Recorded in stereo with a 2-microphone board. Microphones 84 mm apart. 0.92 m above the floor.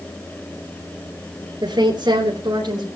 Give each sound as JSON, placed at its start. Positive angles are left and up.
{"t": 1.6, "sound": "a woman speaking", "side_deg": -60, "distance_m": 3.5}